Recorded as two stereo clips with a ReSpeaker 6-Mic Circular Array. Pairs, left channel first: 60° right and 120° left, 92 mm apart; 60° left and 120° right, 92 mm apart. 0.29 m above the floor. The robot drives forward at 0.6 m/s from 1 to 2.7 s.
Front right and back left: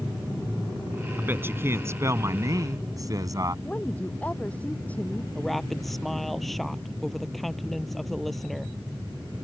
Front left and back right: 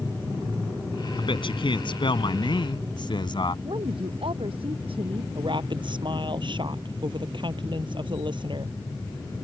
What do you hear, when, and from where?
1.2 s a man speaking: 55° left; by 3.5 s 75° left
3.6 s a woman speaking: 135° right
5.3 s a woman speaking: 150° right